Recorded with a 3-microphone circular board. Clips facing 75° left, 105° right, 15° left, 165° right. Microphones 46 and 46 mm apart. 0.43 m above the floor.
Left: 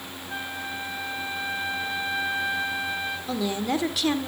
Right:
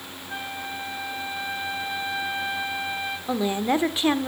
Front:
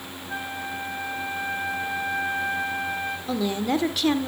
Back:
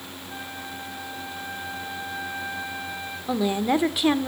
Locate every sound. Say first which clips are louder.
0.3 s a flute: even, front 6 dB; 20° right, 1.4 m
3.3 s a woman speaking: right 4 dB, back 3 dB; 120° right, 0.9 m